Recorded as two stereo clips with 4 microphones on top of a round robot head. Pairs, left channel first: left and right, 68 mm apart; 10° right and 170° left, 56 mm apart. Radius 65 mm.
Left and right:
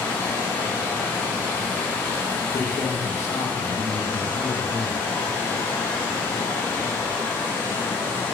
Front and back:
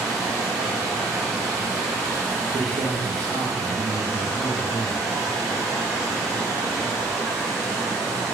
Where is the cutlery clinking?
I don't hear cutlery clinking.